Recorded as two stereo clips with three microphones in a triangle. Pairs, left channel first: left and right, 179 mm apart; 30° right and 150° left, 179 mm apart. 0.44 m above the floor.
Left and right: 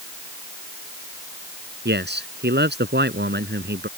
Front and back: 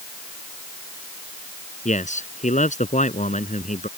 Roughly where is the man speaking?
Right.